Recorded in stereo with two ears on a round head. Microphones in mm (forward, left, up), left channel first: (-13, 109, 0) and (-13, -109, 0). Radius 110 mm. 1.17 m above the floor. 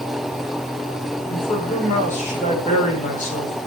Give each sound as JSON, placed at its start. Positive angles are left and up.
{"t": 1.3, "sound": "a man speaking", "side_deg": 30, "distance_m": 4.5}